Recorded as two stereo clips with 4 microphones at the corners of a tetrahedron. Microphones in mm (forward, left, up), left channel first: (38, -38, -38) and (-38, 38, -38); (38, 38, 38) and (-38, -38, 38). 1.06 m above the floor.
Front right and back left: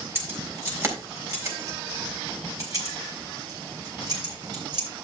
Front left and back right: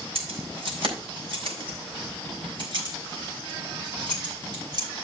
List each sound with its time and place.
0.1 s keys jangling: 160° right, 3.5 m; by 4.9 s straight behind, 5 m